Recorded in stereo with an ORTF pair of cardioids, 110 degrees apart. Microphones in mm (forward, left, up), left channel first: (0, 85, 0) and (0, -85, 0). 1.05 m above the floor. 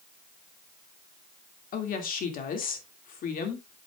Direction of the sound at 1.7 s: 60° left.